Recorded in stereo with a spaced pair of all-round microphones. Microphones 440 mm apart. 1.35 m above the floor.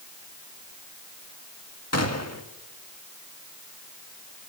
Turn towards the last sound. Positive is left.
turn(degrees=35)  # may be behind; listen again after turning